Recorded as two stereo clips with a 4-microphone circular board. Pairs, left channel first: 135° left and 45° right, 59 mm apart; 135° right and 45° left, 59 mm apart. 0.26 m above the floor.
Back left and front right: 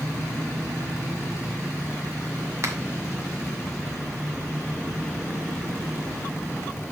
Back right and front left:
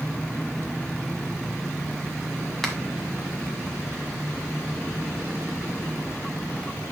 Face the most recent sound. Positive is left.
turn(degrees=-55)